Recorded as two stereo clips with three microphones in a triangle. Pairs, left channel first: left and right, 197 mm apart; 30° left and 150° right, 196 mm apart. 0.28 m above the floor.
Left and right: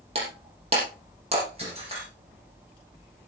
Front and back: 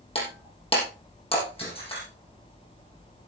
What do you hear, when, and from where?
0.1 s breaking glass: 30° right, 6 m